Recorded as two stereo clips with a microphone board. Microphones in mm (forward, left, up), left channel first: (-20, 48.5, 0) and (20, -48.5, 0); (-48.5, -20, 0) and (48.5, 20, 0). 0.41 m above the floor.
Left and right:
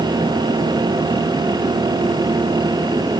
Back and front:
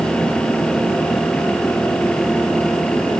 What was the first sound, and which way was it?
Only background noise.